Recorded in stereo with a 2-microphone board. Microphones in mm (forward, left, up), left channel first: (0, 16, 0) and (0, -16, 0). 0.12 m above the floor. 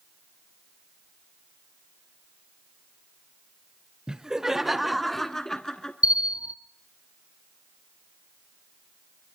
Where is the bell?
50° right (ahead or behind), 0.8 m.